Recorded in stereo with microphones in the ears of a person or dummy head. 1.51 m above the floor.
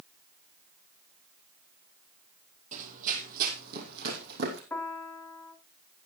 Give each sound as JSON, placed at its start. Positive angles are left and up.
{"t": 2.7, "sound": "running footsteps", "side_deg": -45, "distance_m": 2.5}
{"t": 4.7, "sound": "a piano", "side_deg": 15, "distance_m": 1.5}